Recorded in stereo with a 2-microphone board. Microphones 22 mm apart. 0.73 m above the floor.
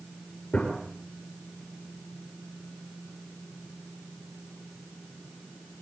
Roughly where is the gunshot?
Left.